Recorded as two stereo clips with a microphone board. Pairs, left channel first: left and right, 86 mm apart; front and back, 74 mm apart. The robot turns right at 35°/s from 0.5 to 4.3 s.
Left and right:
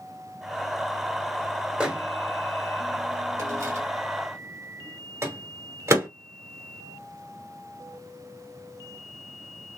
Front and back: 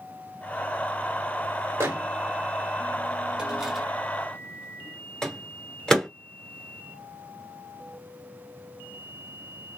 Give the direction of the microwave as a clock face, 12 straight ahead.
5 o'clock.